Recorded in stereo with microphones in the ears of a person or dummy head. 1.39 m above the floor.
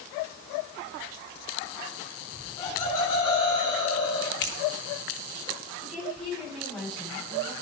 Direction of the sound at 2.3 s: 15° left (ahead or behind).